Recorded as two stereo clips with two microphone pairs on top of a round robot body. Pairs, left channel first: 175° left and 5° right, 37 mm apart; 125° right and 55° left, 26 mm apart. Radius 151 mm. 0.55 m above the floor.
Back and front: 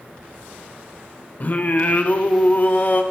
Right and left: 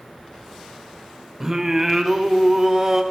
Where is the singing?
130° left, 0.8 m.